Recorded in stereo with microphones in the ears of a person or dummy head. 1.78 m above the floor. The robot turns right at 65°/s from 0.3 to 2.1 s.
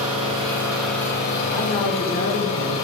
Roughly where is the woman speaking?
Ahead.